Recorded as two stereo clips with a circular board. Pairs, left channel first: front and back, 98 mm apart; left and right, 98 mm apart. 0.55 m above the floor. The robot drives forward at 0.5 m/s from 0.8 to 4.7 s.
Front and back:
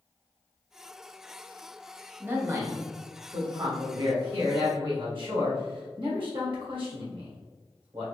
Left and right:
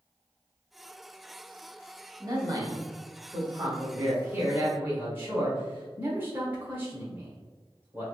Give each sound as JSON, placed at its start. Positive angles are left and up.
{"t": 2.2, "sound": "a man speaking", "azimuth_deg": -115, "distance_m": 1.0}